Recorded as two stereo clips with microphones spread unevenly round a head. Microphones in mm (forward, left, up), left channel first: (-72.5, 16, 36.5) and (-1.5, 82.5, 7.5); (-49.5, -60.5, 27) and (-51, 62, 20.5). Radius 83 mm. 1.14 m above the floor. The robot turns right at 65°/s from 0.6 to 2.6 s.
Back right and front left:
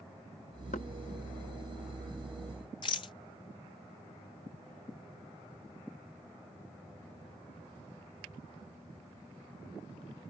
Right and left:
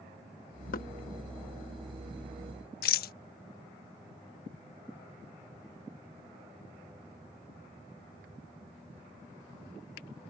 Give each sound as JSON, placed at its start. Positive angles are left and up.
{"t": 0.7, "sound": "knocking", "azimuth_deg": -90}
{"t": 2.8, "sound": "a rattle", "azimuth_deg": -75}